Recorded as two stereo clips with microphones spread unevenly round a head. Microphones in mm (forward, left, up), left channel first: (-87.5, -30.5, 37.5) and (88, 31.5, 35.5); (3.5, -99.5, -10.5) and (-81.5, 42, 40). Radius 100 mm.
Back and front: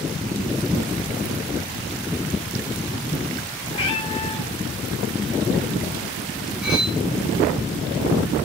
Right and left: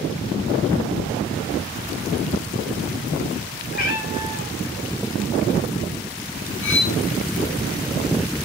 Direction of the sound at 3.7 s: 95° right.